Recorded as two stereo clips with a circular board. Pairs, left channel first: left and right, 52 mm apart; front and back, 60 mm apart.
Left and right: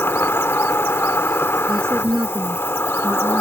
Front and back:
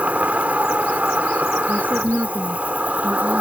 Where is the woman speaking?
120° right.